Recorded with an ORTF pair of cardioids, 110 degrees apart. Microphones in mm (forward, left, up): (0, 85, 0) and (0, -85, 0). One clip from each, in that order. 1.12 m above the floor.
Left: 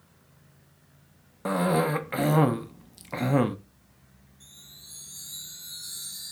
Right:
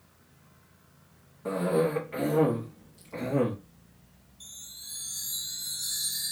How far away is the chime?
About 0.7 m.